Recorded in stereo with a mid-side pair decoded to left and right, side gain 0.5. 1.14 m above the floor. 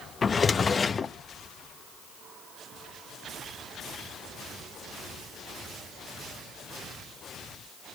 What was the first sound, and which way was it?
A drawer, 35° left.